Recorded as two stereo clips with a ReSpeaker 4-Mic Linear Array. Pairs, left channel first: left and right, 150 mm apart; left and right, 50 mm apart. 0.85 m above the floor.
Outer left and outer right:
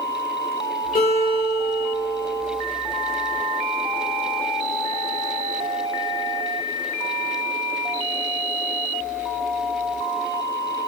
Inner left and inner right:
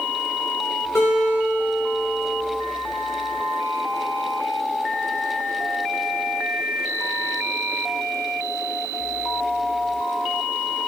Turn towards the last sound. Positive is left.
turn(degrees=80)